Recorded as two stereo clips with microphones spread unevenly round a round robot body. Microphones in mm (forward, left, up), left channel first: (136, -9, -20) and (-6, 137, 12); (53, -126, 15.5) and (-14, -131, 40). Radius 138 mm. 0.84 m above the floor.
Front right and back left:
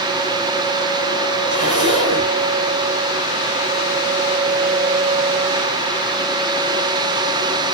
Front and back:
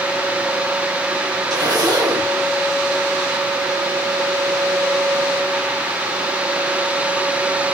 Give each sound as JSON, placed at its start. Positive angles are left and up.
{"t": 1.5, "sound": "a zipper", "azimuth_deg": -165, "distance_m": 3.0}